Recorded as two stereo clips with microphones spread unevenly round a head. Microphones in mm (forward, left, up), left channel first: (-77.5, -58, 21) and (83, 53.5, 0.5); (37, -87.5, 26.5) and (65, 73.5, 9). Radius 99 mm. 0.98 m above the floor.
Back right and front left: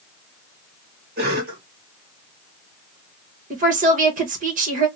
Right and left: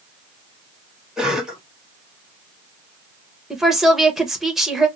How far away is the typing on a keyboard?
I don't hear typing on a keyboard.